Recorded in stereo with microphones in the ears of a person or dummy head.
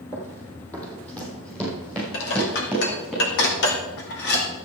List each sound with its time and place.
0.1 s running footsteps: 15° left (ahead or behind), 2.5 m; by 3.1 s 5° left (ahead or behind), 6 m
2.1 s dishes clattering: 75° left (ahead or behind), 2 m